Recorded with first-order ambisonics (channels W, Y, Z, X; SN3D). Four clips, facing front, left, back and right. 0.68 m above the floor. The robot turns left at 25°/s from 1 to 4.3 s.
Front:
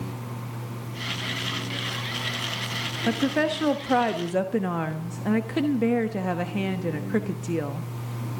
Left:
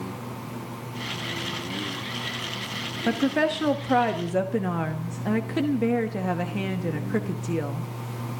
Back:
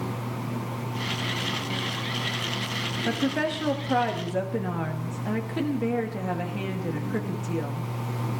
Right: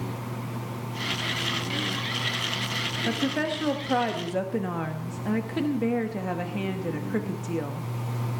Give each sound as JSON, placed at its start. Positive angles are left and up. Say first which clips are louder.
{"t": 3.1, "sound": "a woman speaking", "louder": "left 6 dB, front 3 dB", "azimuth_deg": 60, "distance_m": 1.0}